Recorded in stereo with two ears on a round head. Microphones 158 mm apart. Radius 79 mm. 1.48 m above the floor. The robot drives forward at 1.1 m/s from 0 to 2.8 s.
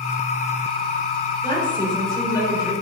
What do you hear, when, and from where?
1.4 s a woman speaking: 30° left (ahead or behind), 5.5 m; by 2.7 s 25° left (ahead or behind), 7 m